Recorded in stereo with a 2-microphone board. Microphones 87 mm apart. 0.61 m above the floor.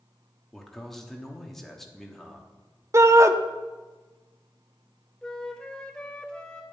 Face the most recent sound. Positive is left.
turn(degrees=10)  # may be behind; listen again after turning